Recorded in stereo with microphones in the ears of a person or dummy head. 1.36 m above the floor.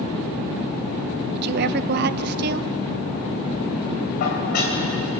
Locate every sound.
1.3 s a woman speaking: 55° right (ahead or behind), 0.8 m
4.2 s dishes clattering: 60° left (ahead or behind), 5 m